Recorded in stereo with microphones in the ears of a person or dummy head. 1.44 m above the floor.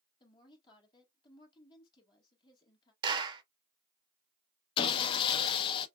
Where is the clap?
25° right (ahead or behind), 0.7 m.